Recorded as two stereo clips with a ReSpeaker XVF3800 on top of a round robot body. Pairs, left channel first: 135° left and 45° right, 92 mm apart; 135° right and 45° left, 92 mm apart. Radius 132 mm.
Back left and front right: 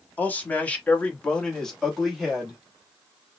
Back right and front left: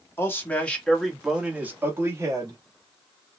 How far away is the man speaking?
About 1.4 m.